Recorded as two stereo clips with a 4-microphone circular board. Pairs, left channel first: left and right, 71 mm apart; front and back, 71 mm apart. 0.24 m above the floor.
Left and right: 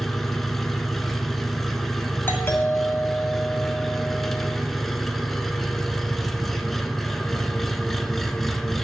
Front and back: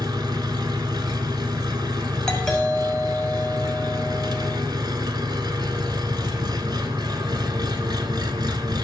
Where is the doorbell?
75° left, 1.9 m.